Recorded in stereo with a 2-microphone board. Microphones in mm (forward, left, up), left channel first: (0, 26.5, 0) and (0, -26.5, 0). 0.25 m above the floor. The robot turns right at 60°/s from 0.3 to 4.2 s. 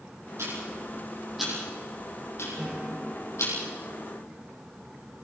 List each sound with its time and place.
0.4 s ticking: 65° right (ahead or behind), 8 m; by 3.5 s 55° left (ahead or behind), 8 m
2.6 s a guitar: 20° right, 5 m; by 4.3 s 80° left, 5 m